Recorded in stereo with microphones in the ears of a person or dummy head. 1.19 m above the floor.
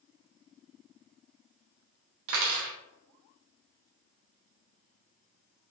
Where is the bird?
No bird in this recording.